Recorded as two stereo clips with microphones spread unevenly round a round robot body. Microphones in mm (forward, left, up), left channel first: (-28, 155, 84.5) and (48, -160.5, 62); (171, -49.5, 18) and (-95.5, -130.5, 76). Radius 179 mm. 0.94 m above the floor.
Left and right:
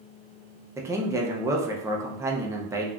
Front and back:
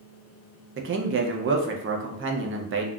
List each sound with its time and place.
0.8 s a man speaking: 140° right, 0.6 m